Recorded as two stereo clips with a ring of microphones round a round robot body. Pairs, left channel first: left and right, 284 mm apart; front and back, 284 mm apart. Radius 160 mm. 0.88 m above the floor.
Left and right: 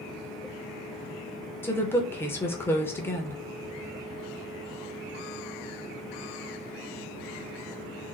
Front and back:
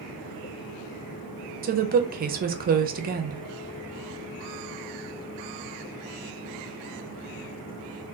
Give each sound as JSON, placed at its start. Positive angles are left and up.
{"t": 1.6, "sound": "a woman speaking", "azimuth_deg": 165, "distance_m": 0.6}